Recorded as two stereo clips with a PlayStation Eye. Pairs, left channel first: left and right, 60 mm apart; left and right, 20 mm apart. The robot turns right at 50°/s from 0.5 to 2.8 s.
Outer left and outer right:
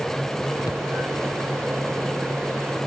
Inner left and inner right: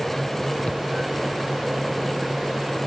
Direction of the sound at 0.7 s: 80° left.